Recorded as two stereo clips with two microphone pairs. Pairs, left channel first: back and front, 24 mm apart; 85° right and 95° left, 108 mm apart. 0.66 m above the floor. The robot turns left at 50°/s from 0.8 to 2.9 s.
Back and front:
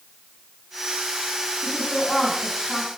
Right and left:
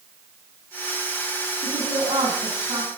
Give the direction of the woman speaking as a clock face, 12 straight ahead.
7 o'clock.